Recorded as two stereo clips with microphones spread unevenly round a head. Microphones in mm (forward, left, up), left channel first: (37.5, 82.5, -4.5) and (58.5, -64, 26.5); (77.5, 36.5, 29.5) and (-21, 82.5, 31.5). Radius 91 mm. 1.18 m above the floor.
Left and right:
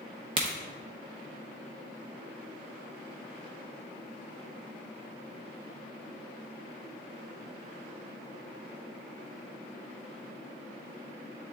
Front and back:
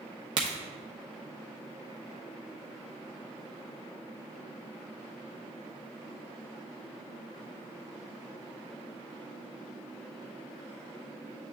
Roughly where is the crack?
Behind right.